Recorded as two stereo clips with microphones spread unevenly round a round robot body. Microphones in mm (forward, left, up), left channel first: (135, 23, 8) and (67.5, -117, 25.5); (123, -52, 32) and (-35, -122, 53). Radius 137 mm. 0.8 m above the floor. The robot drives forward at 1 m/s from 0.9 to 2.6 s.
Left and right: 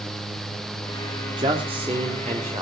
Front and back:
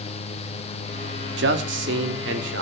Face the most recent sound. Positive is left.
turn(degrees=175)